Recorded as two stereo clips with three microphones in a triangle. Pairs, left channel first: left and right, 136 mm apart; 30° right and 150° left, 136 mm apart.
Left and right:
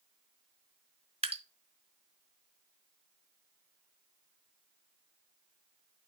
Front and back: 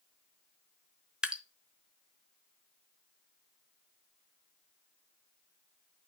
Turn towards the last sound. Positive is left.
turn(degrees=-125)